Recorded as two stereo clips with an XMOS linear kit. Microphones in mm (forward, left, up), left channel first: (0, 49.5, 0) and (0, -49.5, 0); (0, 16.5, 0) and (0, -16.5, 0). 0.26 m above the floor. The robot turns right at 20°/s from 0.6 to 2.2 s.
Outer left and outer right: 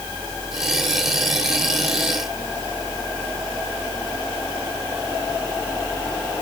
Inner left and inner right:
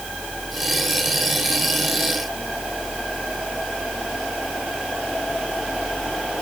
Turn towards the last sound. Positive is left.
No sound to turn to.